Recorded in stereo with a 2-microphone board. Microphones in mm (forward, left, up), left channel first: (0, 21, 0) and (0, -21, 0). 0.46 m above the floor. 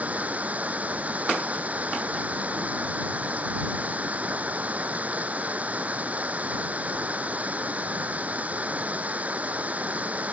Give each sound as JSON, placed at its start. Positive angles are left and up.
{"t": 0.0, "sound": "running water", "side_deg": -40}